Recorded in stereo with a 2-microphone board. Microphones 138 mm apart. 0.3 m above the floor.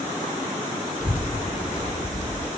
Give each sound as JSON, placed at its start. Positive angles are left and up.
{"t": 1.0, "sound": "a child speaking", "side_deg": 70, "distance_m": 1.8}